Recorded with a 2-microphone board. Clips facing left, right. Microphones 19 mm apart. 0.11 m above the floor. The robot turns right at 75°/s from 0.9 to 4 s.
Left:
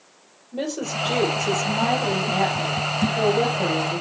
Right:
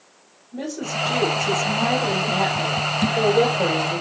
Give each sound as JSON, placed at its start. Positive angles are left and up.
{"t": 0.5, "sound": "a woman speaking", "azimuth_deg": 100, "distance_m": 3.5}